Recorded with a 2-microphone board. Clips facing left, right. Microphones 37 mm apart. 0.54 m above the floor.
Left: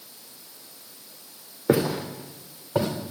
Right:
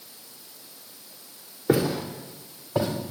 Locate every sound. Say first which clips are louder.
1.7 s footsteps: left 1 dB; 20° left (ahead or behind), 2.5 m; by 2.9 s 25° left (ahead or behind), 4 m